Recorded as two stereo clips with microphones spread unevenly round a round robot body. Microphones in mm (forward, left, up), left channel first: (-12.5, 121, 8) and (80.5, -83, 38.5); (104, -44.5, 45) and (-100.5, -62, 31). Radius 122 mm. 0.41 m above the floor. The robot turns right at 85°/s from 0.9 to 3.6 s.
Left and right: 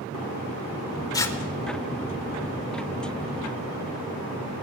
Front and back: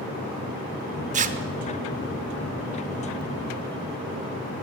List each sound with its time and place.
1.1 s tearing paper: 170° left, 0.8 m; by 1.4 s 170° right, 0.8 m